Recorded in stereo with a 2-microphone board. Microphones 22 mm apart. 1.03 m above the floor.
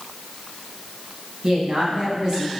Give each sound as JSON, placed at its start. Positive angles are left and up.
{"t": 1.4, "sound": "a woman speaking", "side_deg": -45, "distance_m": 9.5}